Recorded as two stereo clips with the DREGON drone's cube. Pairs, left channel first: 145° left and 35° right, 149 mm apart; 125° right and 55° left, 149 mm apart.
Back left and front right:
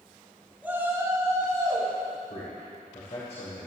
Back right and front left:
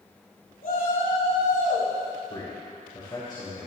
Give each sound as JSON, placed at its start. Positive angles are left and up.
{"t": 0.6, "sound": "a shout", "azimuth_deg": -115, "distance_m": 4.5}
{"t": 2.3, "sound": "a man speaking", "azimuth_deg": 180, "distance_m": 3.0}